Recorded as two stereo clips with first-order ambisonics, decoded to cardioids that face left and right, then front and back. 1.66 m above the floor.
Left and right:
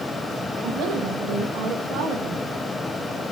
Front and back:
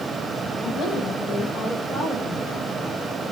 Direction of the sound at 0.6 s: 55° right.